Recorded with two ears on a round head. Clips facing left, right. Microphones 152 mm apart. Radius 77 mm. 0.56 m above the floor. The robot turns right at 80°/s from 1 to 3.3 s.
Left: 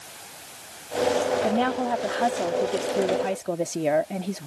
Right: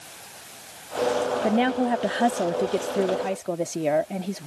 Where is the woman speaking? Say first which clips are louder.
Right 2 dB; 15° right (ahead or behind); by 4.5 s centre (ahead or behind).